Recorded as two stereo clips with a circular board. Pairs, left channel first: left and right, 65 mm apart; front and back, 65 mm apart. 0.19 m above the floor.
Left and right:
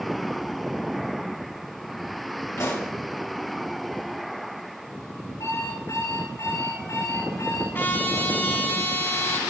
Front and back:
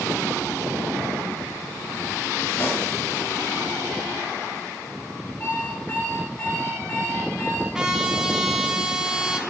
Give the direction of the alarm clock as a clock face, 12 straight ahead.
10 o'clock.